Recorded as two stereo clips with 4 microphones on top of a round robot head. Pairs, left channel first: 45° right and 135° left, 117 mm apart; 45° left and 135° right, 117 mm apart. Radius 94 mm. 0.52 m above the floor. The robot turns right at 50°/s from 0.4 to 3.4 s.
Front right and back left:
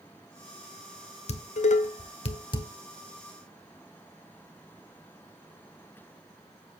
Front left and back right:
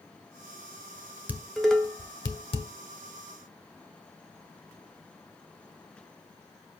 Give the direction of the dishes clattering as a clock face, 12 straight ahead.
2 o'clock.